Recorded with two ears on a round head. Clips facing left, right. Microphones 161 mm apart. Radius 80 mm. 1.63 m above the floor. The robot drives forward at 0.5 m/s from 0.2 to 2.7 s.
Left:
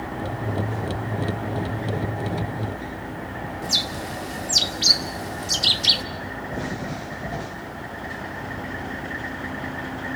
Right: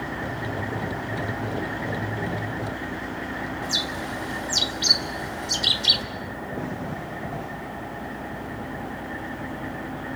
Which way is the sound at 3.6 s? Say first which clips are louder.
Even; 30° left (ahead or behind).